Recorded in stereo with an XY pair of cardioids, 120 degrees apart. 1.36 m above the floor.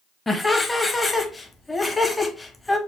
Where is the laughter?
15° left, 0.8 m.